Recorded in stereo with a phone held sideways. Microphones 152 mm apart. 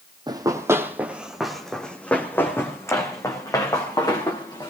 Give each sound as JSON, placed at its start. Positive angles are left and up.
{"t": 0.3, "sound": "running footsteps", "side_deg": -30, "distance_m": 1.6}